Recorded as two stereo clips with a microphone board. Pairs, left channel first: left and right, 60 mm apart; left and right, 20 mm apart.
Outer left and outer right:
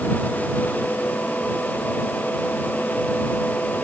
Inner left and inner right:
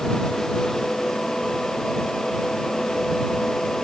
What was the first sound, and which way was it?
Only background noise.